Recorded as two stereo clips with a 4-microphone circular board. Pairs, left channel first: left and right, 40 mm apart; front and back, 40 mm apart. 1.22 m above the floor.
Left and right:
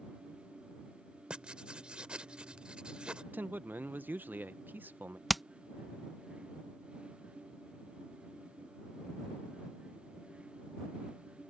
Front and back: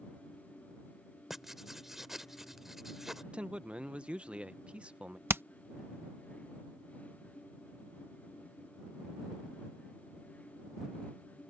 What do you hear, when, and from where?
1.3 s writing: 110° right
3.3 s a man speaking: 120° right
5.3 s hammering: straight behind